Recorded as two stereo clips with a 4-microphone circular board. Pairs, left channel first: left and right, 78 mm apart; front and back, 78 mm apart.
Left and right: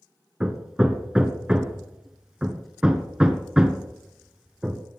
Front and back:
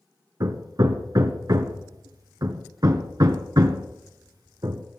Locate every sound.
0.4 s hammering: 170° right, 1.1 m